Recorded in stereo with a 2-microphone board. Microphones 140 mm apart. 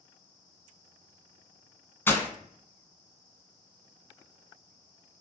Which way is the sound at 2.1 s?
15° left (ahead or behind).